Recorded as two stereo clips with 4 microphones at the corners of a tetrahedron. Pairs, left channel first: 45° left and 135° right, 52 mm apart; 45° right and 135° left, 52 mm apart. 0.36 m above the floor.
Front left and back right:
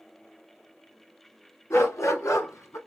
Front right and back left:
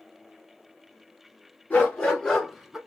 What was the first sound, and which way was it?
A dog barking, 15° left.